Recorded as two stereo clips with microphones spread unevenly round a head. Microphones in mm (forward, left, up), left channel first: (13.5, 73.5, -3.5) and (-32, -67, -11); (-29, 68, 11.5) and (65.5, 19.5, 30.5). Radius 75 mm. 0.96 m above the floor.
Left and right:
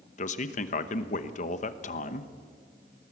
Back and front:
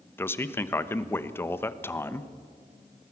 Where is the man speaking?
100° left, 1.1 m.